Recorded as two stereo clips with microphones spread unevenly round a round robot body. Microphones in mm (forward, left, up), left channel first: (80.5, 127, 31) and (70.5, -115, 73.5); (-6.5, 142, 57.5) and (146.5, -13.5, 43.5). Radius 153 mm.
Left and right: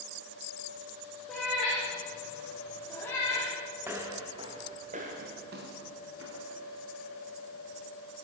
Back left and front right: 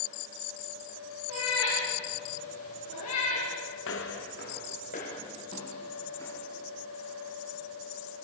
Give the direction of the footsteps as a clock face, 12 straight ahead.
6 o'clock.